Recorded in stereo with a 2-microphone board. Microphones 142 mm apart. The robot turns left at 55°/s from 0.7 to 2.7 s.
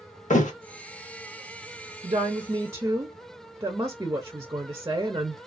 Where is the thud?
55° left (ahead or behind), 0.6 m.